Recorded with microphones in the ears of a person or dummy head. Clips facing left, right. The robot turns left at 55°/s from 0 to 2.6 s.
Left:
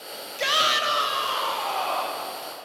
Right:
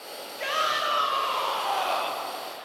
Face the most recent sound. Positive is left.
turn(degrees=-60)